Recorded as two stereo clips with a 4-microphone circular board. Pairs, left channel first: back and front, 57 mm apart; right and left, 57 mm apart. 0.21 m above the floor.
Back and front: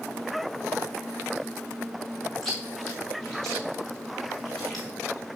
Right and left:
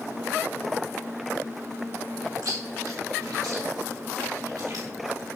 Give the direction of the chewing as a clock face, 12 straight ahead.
9 o'clock.